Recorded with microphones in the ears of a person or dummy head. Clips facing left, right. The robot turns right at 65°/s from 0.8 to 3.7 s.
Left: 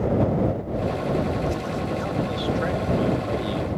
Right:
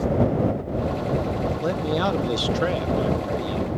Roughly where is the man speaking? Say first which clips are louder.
Right 4 dB; behind right.